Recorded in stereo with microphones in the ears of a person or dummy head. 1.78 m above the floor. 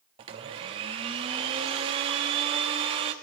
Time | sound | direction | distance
0.2 | a blender | 25° right (ahead or behind) | 1.3 m